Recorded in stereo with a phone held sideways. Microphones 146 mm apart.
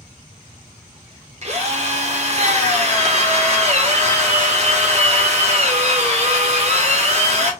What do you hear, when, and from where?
1.4 s a drill: 50° right (ahead or behind), 0.9 m